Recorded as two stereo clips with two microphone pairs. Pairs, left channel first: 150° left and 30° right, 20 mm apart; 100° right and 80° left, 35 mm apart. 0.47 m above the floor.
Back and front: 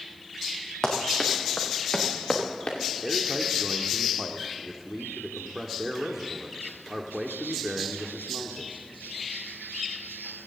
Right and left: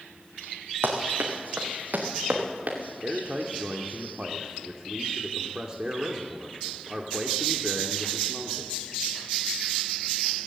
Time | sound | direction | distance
0.8 | running footsteps | 85° left | 3 m
3.0 | a man speaking | 35° left | 1.0 m